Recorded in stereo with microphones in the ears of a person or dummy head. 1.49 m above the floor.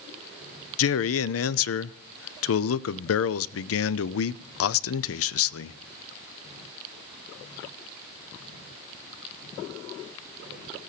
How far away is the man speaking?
About 0.5 m.